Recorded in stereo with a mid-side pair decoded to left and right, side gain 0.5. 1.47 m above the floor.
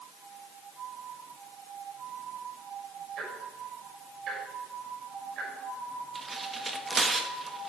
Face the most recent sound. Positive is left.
turn(degrees=-30)